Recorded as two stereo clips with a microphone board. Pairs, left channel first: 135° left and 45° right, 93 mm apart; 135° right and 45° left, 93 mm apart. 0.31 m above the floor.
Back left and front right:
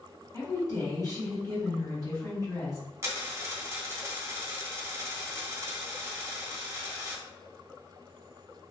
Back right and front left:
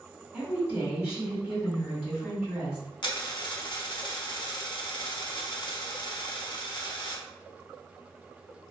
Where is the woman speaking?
120° left, 1.7 m.